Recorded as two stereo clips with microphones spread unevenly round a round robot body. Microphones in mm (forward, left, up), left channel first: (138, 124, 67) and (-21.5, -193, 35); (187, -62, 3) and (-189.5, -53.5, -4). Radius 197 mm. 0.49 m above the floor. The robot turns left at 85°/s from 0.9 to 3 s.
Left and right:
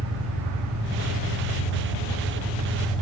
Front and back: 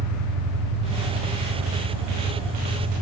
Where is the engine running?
65° right, 6.5 m; by 3.0 s 120° left, 6.5 m.